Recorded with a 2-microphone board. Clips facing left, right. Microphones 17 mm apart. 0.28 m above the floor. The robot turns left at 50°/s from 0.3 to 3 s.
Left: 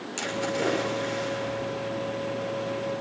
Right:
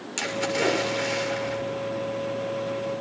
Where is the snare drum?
I don't hear a snare drum.